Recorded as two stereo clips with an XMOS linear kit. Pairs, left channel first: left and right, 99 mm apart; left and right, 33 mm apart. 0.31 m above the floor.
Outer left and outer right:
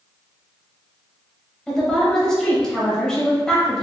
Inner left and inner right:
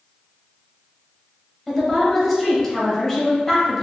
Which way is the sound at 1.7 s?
5° left (ahead or behind).